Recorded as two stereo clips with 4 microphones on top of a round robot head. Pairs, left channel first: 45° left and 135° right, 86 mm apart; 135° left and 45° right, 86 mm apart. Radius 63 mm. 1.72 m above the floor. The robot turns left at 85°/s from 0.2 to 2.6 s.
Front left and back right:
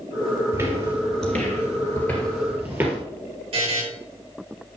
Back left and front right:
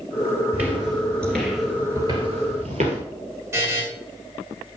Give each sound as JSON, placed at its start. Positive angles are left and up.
{"t": 0.5, "sound": "footsteps", "azimuth_deg": -90, "distance_m": 1.8}
{"t": 3.5, "sound": "a buzzer", "azimuth_deg": -110, "distance_m": 6.0}